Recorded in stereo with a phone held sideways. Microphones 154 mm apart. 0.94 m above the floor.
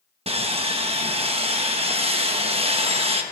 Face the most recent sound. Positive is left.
turn(degrees=-40)  # may be behind; listen again after turning